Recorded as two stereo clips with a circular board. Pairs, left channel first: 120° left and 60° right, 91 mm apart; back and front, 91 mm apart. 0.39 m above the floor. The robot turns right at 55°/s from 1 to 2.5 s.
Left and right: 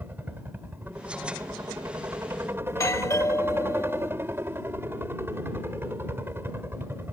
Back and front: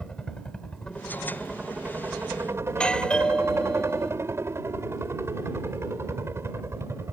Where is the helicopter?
105° right; by 7.1 s 25° right.